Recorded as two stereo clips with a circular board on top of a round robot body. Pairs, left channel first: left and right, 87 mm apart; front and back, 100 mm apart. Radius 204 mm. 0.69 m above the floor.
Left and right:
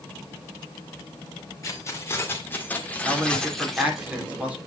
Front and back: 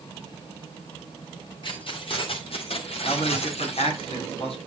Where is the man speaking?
15° right, 3 m.